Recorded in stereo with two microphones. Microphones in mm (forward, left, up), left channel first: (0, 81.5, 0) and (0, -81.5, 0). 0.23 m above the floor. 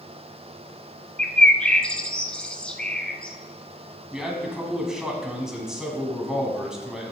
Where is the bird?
5° left (ahead or behind), 0.7 m.